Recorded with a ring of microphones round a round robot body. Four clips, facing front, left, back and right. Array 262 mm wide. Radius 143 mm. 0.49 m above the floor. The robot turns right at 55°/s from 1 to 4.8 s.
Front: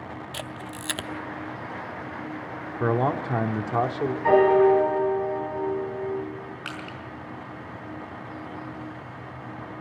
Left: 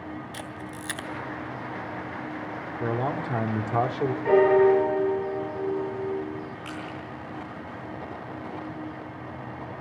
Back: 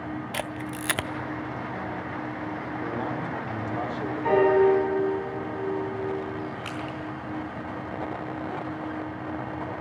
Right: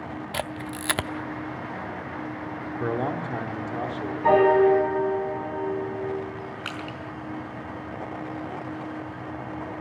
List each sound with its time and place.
0.3 s a camera shutter: 110° right, 0.7 m; by 1.1 s 105° right, 0.7 m
2.8 s a man speaking: 15° right, 1.8 m; by 4.1 s 60° left, 1.8 m
4.2 s a piano: 70° right, 4 m; by 6.2 s 40° right, 4 m
6.7 s crushing: 65° right, 4.5 m